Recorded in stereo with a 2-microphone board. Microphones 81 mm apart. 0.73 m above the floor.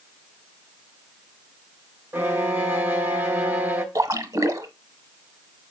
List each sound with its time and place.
2.1 s a violin: 25° right (ahead or behind), 1.3 m
4.0 s a splash: 45° right (ahead or behind), 0.9 m